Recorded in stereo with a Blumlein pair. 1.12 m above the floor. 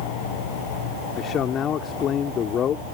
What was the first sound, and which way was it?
A man speaking, 25° left.